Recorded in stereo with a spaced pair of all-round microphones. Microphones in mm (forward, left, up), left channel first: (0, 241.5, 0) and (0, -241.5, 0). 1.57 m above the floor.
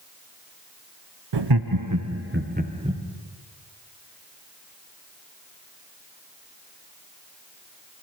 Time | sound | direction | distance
1.3 | laughter | 60° right (ahead or behind) | 0.6 m